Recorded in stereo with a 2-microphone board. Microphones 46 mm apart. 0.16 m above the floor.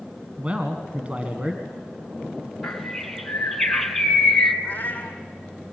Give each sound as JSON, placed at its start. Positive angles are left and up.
{"t": 0.4, "sound": "a man speaking", "side_deg": -25, "distance_m": 1.7}
{"t": 2.6, "sound": "a bird", "side_deg": 5, "distance_m": 1.6}
{"t": 4.6, "sound": "a cat meowing", "side_deg": 35, "distance_m": 2.0}